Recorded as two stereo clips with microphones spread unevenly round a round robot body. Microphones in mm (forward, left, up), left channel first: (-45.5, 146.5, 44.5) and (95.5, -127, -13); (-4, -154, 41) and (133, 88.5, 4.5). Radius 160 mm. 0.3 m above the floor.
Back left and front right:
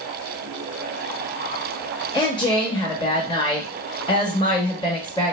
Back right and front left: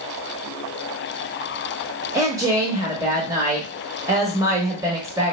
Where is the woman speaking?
35° left, 0.9 m.